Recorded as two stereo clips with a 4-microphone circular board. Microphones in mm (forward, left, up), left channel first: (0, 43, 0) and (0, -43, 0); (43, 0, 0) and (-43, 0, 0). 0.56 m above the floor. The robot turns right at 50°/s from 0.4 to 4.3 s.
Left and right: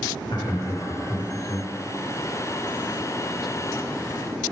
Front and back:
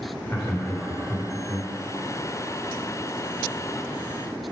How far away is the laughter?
About 1.6 m.